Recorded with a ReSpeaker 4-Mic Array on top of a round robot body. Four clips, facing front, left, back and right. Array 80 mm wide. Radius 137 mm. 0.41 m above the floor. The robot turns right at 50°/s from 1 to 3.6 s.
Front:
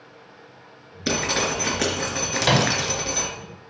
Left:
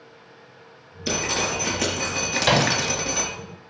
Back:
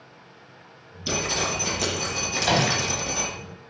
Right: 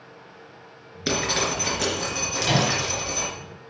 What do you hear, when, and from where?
1.1 s dripping: 35° right, 3.5 m; by 3.3 s 75° left, 3.5 m
2.4 s a microwave: 45° left, 2 m; by 2.7 s 60° left, 2 m